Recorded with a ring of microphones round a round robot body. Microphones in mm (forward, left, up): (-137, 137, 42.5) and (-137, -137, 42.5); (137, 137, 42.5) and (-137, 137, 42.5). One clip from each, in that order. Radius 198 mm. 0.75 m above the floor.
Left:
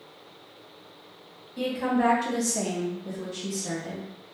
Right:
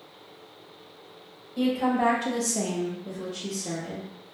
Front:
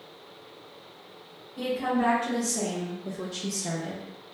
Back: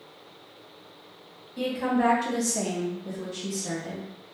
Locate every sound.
1.6 s a woman speaking: 165° right, 1.5 m; by 4.1 s 30° left, 1.2 m